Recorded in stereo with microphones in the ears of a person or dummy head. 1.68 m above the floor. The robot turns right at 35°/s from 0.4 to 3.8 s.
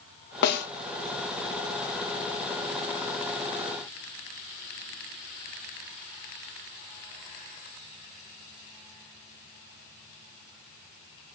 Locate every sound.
0.4 s a snare drum: 60° left (ahead or behind), 1.3 m; by 0.7 s 70° left (ahead or behind), 1.3 m